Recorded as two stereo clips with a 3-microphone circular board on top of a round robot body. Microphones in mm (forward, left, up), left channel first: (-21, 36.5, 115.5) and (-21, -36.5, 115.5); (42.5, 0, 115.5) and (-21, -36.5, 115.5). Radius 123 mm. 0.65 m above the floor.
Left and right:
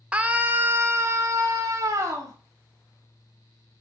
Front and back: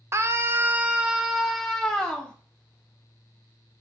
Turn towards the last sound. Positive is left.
turn(degrees=-45)